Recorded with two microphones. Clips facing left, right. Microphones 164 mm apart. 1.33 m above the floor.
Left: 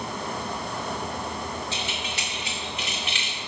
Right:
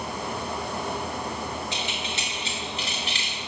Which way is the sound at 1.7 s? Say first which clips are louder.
Right 1 dB; 15° right (ahead or behind).